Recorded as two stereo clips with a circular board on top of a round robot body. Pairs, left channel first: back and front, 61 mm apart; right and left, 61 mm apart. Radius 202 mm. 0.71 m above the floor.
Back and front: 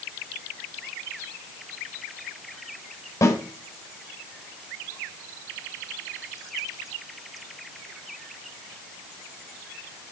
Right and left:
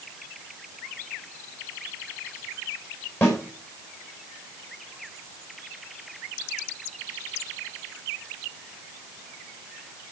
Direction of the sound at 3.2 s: 140° right.